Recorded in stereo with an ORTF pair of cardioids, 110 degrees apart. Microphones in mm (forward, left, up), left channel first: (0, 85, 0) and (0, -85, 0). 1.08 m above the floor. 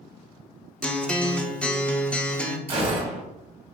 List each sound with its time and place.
0.8 s a guitar: 5° left, 0.6 m
2.7 s a gunshot: 35° right, 1.7 m